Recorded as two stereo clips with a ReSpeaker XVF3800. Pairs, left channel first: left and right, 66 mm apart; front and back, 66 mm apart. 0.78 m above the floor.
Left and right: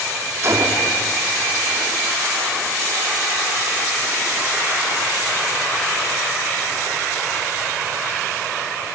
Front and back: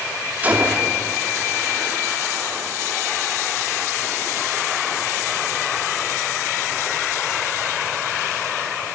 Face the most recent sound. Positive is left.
turn(degrees=-120)